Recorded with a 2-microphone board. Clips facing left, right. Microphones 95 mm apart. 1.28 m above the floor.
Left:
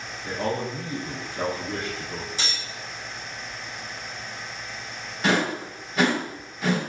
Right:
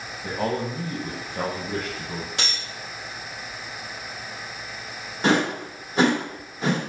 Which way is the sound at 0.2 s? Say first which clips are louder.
Right 1 dB; 70° right (ahead or behind).